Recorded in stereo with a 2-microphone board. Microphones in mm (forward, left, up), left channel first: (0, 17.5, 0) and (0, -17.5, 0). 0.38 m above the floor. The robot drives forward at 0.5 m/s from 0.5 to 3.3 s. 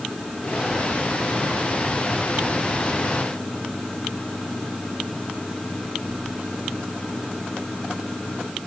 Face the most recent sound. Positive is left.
No sound to turn to.